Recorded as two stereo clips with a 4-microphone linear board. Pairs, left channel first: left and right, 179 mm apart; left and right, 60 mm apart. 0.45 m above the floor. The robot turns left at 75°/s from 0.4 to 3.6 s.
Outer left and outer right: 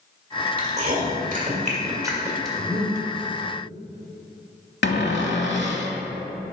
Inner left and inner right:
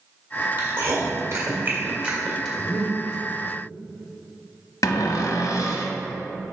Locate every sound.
0.6 s chewing: 30° right (ahead or behind), 1.8 m; by 2.5 s centre (ahead or behind), 1.8 m
2.6 s breathing: 5° right (ahead or behind), 2.5 m; by 3.0 s 20° left (ahead or behind), 2.5 m
4.8 s a cupboard door: 85° left, 0.9 m